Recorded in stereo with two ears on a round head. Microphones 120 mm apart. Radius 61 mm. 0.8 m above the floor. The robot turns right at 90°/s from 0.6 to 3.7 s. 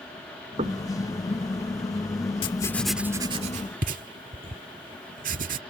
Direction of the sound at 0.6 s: 45° right (ahead or behind).